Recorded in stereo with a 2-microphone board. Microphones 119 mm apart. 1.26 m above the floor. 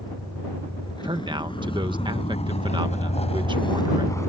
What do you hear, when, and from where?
0.0 s a vehicle: 35° left (ahead or behind); by 4.3 s 25° left (ahead or behind)
1.0 s a man speaking: 45° right (ahead or behind)